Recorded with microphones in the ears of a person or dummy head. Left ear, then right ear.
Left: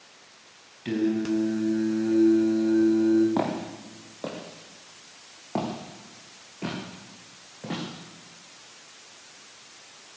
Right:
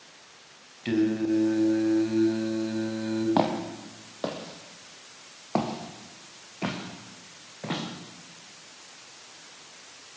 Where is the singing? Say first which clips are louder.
Right 1 dB; 20° right (ahead or behind), 4 m.